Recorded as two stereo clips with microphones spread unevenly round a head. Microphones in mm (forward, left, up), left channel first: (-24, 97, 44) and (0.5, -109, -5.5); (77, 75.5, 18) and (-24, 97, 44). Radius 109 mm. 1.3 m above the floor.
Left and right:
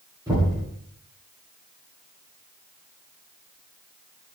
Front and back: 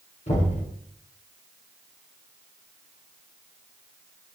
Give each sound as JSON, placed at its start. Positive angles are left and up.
{"t": 0.3, "sound": "knocking", "azimuth_deg": -10, "distance_m": 9.0}